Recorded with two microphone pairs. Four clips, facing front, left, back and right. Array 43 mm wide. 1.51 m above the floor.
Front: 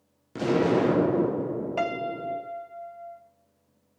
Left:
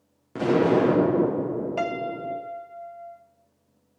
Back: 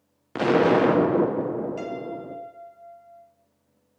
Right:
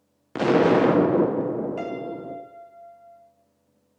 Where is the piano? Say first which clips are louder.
Left 3 dB, front 4 dB; 30° left, 0.7 m.